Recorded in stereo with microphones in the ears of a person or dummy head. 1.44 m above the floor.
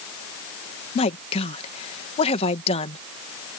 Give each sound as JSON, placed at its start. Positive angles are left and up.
{"t": 0.9, "sound": "a woman speaking", "side_deg": 35}